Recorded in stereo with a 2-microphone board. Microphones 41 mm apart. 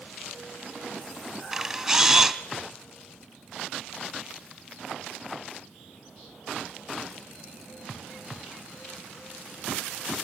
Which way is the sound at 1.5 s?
5° right (ahead or behind).